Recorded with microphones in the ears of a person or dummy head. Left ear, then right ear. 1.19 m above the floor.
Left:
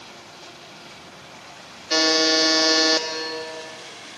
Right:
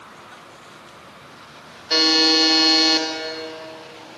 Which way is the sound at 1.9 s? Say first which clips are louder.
Right 2 dB; 10° right (ahead or behind).